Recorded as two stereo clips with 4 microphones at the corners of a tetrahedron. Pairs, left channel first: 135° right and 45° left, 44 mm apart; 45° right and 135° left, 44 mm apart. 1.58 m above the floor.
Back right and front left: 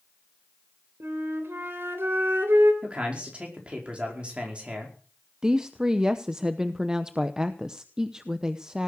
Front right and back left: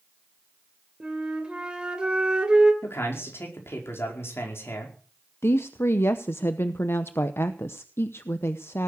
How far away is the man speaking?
About 5 m.